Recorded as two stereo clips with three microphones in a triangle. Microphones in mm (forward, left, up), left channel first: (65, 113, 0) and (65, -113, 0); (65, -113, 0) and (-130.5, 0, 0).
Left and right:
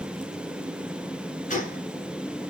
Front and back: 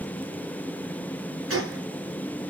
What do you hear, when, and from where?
1.5 s a gunshot: 145° left, 3.5 m